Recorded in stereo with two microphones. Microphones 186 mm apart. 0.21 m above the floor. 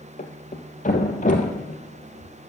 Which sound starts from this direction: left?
A thud, at 0.2 s.